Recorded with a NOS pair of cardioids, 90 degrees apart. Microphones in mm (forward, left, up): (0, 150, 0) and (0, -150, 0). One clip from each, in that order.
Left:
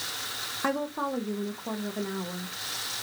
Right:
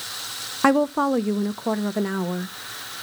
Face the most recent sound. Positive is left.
turn(degrees=-50)